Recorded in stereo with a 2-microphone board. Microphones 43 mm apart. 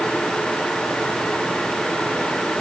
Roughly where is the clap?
No clap in this recording.